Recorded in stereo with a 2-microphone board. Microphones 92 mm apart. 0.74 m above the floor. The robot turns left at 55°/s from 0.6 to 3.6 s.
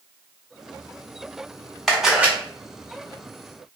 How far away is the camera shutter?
About 0.6 m.